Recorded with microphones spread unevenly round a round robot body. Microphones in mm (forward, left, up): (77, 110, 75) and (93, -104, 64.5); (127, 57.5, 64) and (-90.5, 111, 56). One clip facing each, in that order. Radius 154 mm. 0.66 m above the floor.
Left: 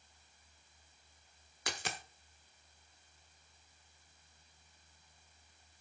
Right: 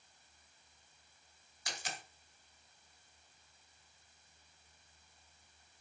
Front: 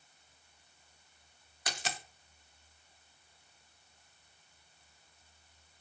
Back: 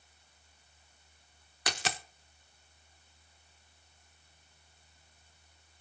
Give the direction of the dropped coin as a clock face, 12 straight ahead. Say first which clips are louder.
Left 4 dB, back 4 dB; 7 o'clock.